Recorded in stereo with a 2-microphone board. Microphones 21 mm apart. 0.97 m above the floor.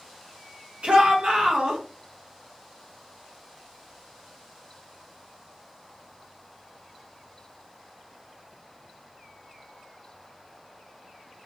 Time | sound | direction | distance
0.8 | a shout | 65° right (ahead or behind) | 1.0 m